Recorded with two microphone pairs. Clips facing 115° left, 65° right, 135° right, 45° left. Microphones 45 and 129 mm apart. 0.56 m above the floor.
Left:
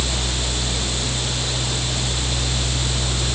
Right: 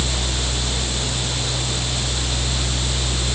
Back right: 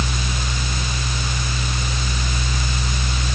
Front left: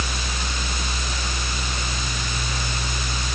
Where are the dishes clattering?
I don't hear dishes clattering.